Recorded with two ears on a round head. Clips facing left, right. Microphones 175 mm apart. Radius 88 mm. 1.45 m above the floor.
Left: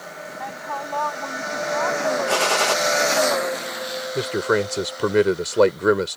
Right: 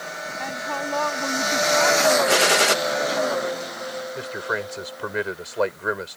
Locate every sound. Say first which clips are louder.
0.4 s a woman speaking: right 2 dB; 30° right (ahead or behind); by 2.2 s 40° right (ahead or behind)
2.3 s a gunshot: right 1 dB; 20° right (ahead or behind)
4.2 s a man speaking: left 12 dB; 60° left (ahead or behind)